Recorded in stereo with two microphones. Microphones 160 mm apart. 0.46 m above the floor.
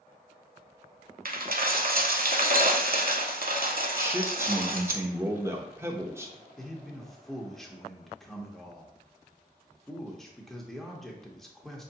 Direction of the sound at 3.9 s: 15° right (ahead or behind).